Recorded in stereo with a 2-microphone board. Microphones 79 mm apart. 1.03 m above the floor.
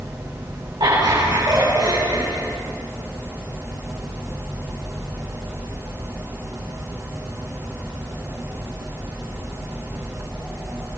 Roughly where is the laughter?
Right.